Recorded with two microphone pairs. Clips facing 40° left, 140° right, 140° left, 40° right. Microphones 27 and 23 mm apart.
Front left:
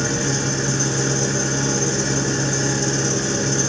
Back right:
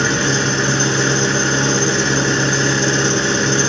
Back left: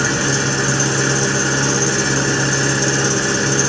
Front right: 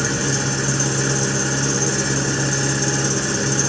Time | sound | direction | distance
0.0 | an engine running | 160° right | 1.0 m